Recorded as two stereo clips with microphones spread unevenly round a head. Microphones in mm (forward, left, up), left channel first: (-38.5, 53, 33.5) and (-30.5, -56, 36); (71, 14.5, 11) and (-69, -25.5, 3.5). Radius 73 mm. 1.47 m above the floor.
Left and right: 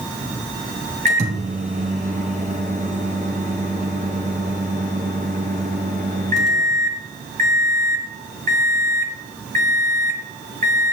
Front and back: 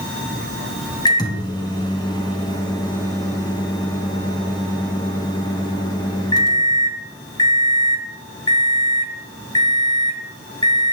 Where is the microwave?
45° right, 1.0 m.